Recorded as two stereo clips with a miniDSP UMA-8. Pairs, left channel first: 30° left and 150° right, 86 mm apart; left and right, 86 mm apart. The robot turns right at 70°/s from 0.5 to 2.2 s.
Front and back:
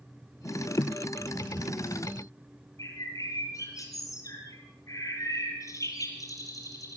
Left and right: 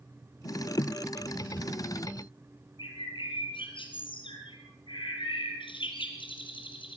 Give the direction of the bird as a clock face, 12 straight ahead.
9 o'clock.